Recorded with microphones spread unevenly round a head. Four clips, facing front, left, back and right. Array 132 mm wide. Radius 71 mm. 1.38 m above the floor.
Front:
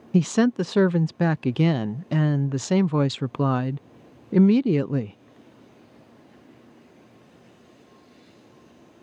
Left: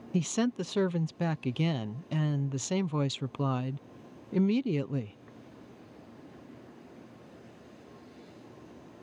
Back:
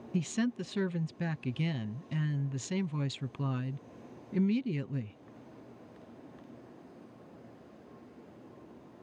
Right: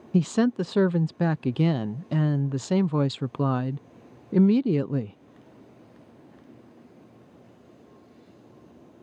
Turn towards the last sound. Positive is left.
turn(degrees=-30)